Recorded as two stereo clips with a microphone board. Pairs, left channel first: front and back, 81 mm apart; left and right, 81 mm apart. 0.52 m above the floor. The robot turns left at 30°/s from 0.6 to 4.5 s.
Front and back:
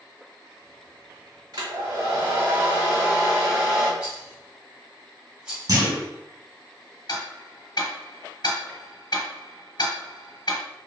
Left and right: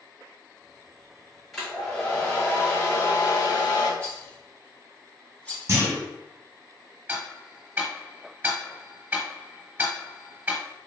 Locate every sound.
1.5 s a hair dryer: 175° right, 1.6 m; by 3.9 s 110° left, 1.6 m
4.0 s a rattle: 140° left, 1.1 m; by 5.7 s 125° left, 1.1 m
5.7 s a clunk: 145° right, 1.3 m
7.1 s ticking: 25° right, 0.9 m